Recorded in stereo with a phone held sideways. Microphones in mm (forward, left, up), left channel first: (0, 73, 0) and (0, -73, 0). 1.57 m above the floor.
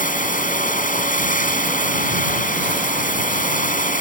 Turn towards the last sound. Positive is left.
turn(degrees=65)  # may be behind; listen again after turning